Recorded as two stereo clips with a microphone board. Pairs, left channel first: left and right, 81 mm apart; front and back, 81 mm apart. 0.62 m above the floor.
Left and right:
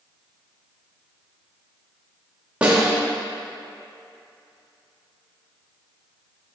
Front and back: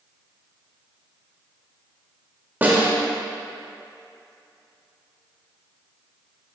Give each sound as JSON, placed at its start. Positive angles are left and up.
{"t": 2.6, "sound": "a snare drum", "azimuth_deg": -145, "distance_m": 1.0}